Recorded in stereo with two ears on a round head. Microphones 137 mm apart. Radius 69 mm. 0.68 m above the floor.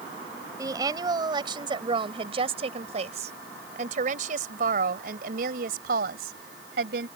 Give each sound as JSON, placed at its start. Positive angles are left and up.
{"t": 0.6, "sound": "a woman speaking", "side_deg": -25}